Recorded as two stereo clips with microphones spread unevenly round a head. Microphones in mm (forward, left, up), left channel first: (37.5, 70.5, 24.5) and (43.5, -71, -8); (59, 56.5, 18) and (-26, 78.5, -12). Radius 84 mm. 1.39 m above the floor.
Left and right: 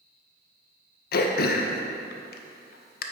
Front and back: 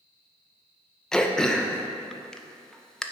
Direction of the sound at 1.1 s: 80° left.